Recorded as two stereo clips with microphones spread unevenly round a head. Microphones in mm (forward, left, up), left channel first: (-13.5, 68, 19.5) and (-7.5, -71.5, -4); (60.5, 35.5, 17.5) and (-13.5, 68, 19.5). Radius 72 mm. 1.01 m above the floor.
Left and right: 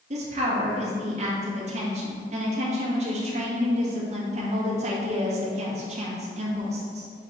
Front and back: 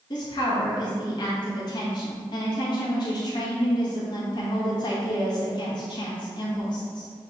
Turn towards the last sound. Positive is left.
turn(degrees=-60)